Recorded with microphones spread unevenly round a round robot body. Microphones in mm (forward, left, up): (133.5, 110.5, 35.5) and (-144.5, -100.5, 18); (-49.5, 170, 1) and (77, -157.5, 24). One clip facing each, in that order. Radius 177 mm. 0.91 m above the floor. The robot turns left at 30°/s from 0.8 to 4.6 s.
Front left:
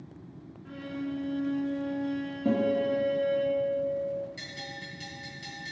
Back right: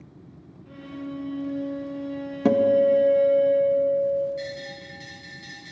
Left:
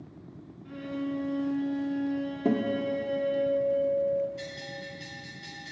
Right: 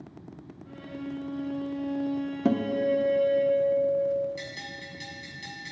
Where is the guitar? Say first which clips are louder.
Back right 8 dB, right 2 dB; 130° right, 0.7 m; by 4.3 s 175° left, 0.7 m.